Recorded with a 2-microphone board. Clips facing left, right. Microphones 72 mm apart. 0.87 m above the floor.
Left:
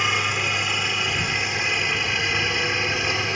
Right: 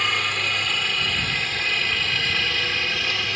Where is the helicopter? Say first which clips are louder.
Left 1 dB; 10° left (ahead or behind); by 3.4 s 20° left (ahead or behind).